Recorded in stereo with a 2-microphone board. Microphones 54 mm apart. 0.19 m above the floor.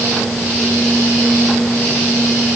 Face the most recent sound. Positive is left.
No sound to turn to.